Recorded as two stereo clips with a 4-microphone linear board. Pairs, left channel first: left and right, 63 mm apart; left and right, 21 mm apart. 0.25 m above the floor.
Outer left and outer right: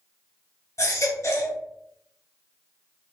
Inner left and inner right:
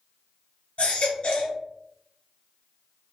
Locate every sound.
0.8 s a baby crying: 60° left (ahead or behind), 1.1 m